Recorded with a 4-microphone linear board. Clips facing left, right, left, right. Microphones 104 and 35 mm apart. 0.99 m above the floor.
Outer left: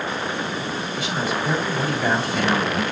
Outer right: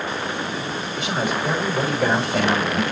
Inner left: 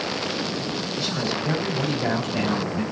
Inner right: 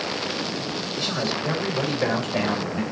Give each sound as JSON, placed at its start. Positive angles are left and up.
{"t": 0.9, "sound": "a man speaking", "side_deg": -60, "distance_m": 5.0}